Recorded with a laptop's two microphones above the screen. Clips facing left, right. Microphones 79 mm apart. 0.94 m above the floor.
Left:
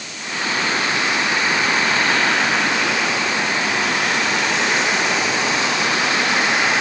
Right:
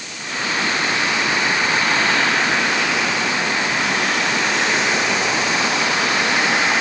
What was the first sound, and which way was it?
Only background noise.